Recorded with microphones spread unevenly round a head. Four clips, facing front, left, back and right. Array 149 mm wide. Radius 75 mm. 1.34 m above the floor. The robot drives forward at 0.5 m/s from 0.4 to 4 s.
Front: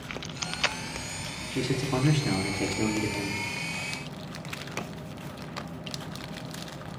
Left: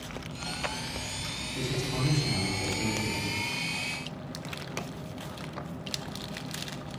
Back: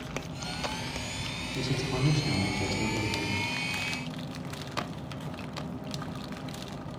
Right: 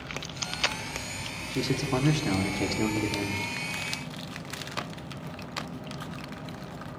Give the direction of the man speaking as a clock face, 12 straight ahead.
1 o'clock.